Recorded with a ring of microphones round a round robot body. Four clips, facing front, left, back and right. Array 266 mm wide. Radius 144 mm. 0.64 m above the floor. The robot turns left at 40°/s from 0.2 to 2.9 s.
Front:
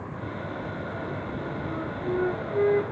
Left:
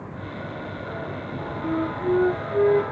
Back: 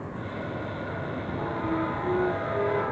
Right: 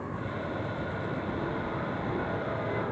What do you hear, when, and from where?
1.6 s a flute: 110° left; by 2.9 s 60° left